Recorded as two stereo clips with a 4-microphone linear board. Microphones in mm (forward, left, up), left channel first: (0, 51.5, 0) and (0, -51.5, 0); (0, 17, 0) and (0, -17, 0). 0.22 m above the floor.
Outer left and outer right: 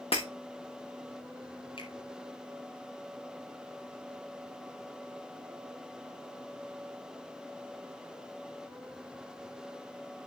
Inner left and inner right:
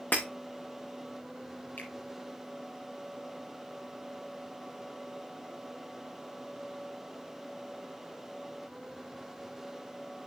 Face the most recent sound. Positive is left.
turn(degrees=70)  # may be behind; listen again after turning